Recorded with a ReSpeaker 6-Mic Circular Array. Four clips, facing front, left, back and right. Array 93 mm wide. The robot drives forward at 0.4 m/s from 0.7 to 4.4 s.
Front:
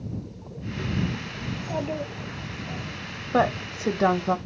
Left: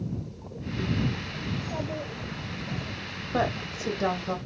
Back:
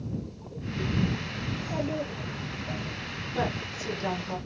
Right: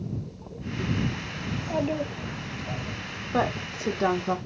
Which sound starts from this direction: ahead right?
A child speaking, at 1.5 s.